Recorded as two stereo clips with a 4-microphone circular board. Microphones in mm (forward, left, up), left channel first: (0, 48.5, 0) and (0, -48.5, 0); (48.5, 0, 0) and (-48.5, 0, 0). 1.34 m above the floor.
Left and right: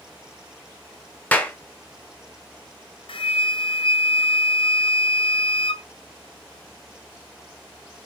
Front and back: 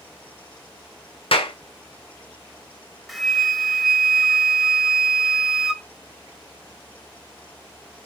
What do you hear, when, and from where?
1.3 s a clap: 15° left, 0.7 m
3.1 s a flute: 90° left, 0.5 m